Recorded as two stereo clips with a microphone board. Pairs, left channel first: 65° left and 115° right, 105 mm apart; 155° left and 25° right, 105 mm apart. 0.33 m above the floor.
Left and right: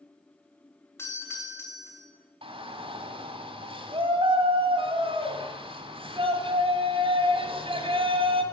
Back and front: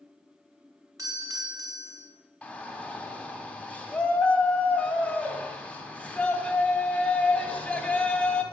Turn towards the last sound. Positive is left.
turn(degrees=-125)